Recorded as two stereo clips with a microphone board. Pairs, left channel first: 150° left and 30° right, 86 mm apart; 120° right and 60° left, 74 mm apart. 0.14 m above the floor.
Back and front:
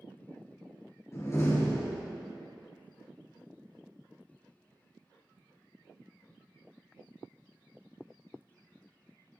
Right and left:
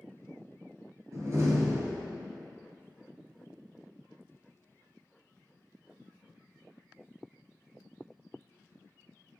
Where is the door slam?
100° left, 2.5 m.